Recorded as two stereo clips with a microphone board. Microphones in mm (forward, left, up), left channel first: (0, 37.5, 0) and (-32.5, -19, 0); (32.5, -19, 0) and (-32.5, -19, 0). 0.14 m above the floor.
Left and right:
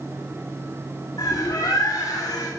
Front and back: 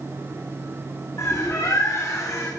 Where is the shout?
No shout in this recording.